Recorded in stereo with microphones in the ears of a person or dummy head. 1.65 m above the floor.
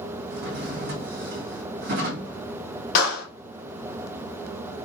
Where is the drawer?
45° right (ahead or behind), 1.5 m.